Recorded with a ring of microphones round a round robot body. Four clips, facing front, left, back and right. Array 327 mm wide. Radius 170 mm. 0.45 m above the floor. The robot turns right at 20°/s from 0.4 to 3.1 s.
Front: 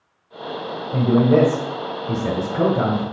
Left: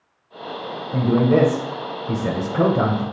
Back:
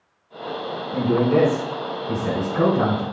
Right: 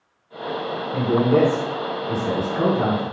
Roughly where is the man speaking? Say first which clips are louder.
Left 1 dB, front 3 dB; ahead left.